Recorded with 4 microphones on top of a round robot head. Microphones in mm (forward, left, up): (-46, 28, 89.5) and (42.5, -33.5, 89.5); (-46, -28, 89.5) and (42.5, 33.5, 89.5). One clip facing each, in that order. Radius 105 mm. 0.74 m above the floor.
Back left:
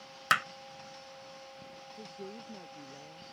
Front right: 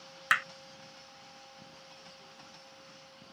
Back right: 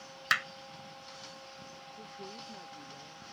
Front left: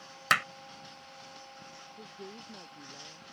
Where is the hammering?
80° left.